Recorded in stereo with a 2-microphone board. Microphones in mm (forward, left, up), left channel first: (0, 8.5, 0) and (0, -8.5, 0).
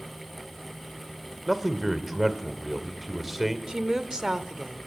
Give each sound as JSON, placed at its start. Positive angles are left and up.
{"t": 1.5, "sound": "a man speaking", "side_deg": -15, "distance_m": 1.9}
{"t": 3.7, "sound": "a woman speaking", "side_deg": -45, "distance_m": 1.3}